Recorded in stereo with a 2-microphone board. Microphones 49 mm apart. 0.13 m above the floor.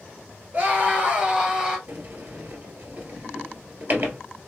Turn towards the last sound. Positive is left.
turn(degrees=-45)  # may be behind; listen again after turning